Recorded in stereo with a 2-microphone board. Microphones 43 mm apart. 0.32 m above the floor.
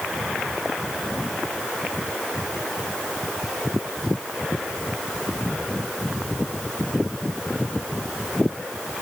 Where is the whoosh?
I don't hear a whoosh.